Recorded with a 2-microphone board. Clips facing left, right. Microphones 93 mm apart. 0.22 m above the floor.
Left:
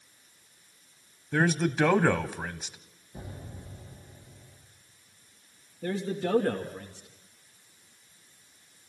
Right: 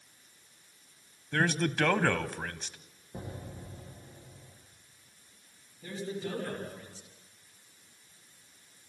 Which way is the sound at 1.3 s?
10° left (ahead or behind).